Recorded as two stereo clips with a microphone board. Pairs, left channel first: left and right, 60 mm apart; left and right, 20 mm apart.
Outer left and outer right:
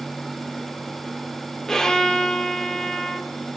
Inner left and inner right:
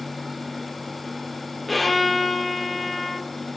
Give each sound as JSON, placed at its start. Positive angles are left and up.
{"t": 1.7, "sound": "a violin", "side_deg": 10, "distance_m": 1.3}